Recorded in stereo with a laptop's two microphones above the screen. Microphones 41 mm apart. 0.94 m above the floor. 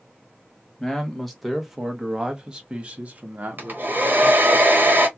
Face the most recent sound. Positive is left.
turn(degrees=-50)  # may be behind; listen again after turning